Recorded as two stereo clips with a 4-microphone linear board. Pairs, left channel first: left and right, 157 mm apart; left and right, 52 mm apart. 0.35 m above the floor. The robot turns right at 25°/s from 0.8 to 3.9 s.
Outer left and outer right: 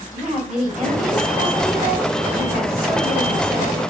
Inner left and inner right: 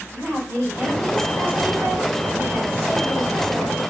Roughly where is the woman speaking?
Right.